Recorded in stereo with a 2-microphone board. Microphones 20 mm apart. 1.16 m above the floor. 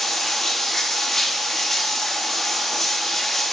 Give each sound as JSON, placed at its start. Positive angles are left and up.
{"t": 0.0, "sound": "running water", "side_deg": 15, "distance_m": 1.8}